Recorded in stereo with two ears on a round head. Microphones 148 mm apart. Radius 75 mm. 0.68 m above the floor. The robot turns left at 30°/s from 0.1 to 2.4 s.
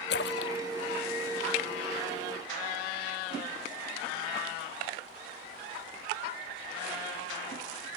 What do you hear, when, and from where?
0.1 s a splash: 75° left (ahead or behind); by 1.9 s 55° left (ahead or behind)